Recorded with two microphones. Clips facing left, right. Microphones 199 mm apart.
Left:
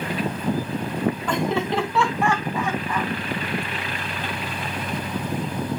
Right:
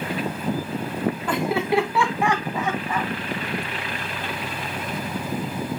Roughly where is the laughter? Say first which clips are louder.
Right 1 dB; centre.